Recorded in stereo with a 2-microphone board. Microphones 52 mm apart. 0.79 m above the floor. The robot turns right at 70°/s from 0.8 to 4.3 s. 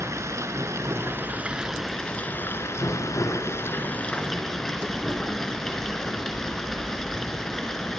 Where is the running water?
75° right, 3.5 m; by 8.0 s 170° left, 3.5 m.